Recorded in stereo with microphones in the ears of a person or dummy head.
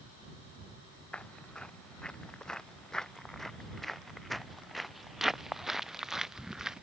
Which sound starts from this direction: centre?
Footsteps, at 1.1 s.